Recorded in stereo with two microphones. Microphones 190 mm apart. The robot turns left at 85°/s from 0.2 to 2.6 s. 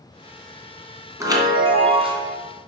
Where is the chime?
30° right, 1.4 m; by 2.3 s 130° right, 1.4 m.